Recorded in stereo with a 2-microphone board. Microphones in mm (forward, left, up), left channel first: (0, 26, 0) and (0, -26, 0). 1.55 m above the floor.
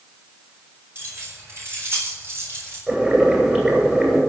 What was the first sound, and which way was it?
Keys jangling, 45° right (ahead or behind).